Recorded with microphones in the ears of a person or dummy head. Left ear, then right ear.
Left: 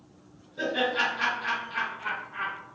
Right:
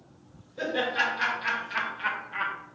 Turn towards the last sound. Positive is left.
turn(degrees=-75)  # may be behind; listen again after turning